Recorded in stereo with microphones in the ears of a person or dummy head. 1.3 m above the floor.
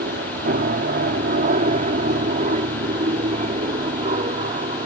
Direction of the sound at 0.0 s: 45° right (ahead or behind).